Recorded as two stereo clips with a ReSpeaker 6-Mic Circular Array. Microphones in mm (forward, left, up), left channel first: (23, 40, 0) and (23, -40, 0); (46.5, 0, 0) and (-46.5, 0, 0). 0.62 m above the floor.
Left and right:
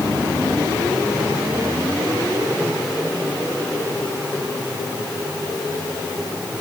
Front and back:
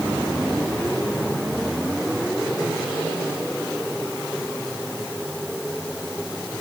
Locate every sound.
Only background noise.